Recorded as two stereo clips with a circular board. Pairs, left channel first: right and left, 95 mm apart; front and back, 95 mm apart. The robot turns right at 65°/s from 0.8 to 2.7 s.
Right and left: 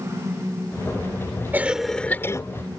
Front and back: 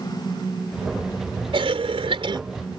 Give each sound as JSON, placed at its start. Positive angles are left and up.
{"t": 1.5, "sound": "a cough", "azimuth_deg": 160}